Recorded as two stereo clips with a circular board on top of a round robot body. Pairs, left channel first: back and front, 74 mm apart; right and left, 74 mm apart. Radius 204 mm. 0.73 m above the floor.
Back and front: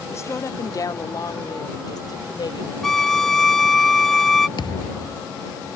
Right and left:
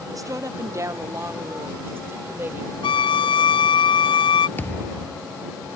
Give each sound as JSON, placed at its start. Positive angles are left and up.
{"t": 0.1, "sound": "a woman speaking", "azimuth_deg": 130}
{"t": 2.8, "sound": "a violin", "azimuth_deg": -95}
{"t": 4.6, "sound": "a thud", "azimuth_deg": -155}